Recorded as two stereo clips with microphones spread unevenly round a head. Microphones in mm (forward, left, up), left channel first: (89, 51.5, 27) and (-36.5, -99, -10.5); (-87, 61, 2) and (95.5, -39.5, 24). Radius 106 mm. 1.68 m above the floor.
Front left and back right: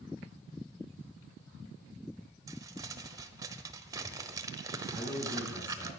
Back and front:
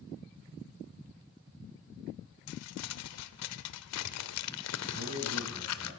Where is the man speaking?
40° right, 7 m.